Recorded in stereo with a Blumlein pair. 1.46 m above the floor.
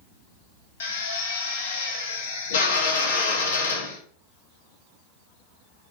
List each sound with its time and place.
0.8 s a drill: 60° left, 0.8 m